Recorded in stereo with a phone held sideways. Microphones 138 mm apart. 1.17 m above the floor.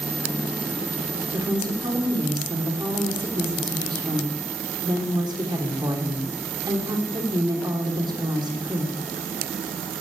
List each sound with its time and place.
1.3 s a woman speaking: 35° right (ahead or behind), 3 m